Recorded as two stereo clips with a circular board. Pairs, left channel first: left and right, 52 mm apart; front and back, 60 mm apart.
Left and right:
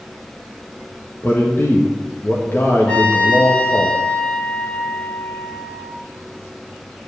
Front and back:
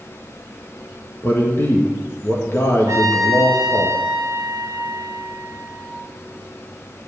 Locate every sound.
1.2 s a man speaking: 45° left, 1.5 m
2.9 s a trumpet: 155° left, 1.7 m